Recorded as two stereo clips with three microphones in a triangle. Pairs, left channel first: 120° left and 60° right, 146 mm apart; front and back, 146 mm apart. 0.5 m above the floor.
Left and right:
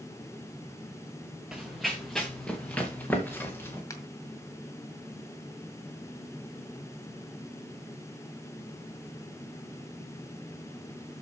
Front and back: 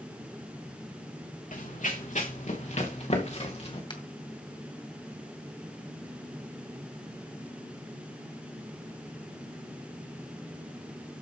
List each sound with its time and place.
1.5 s running footsteps: 25° left, 2.5 m; by 3.8 s 45° left, 3.5 m
3.9 s a finger snap: 55° left, 2 m